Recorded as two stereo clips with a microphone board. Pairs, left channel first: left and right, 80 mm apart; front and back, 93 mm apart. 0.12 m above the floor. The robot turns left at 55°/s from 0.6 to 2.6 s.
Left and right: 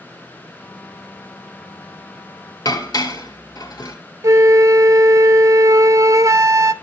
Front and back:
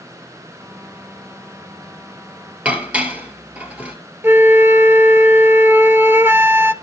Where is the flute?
120° right, 0.5 m.